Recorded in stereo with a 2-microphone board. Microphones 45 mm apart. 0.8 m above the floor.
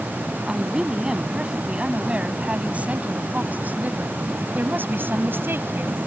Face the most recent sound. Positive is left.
turn(degrees=-55)  # may be behind; listen again after turning